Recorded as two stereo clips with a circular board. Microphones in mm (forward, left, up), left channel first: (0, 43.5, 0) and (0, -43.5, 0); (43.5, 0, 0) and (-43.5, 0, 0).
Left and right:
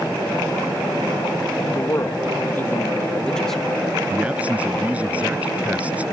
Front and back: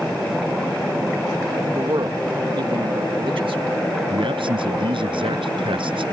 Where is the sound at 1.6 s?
140° left; by 3.7 s straight behind.